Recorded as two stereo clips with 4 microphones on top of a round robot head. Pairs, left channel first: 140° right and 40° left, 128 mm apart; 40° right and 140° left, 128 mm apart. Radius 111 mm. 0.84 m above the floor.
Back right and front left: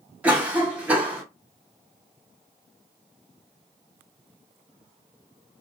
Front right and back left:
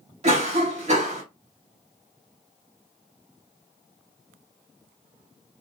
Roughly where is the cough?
Behind left.